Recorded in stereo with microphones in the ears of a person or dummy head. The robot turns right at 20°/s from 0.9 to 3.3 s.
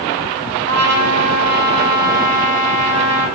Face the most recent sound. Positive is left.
turn(degrees=-55)